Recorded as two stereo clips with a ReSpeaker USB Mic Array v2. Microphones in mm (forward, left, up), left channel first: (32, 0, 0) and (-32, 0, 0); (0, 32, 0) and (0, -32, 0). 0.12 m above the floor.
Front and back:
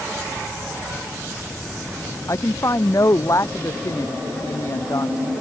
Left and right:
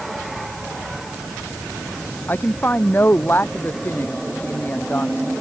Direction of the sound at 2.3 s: 35° left.